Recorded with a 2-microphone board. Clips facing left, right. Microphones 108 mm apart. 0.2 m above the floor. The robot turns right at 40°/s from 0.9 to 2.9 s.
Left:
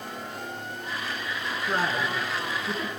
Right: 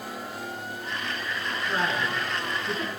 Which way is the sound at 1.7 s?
40° left (ahead or behind).